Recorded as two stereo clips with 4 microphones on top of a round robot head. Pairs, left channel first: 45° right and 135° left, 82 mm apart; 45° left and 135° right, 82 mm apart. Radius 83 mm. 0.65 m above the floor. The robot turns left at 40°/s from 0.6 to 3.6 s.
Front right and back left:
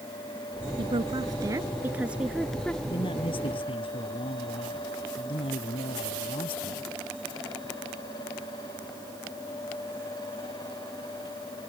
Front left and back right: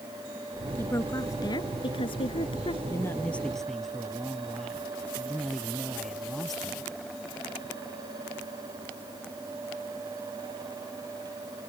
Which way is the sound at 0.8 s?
115° left.